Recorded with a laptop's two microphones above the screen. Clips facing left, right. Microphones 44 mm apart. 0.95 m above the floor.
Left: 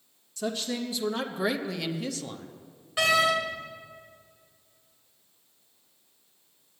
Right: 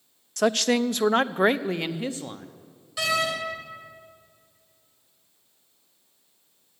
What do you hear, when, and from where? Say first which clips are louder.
0.4 s a woman speaking: right 10 dB; 65° right (ahead or behind), 0.5 m; by 2.5 s 20° right (ahead or behind), 1.1 m
3.0 s a door slam: left 3 dB; 30° left (ahead or behind), 3.5 m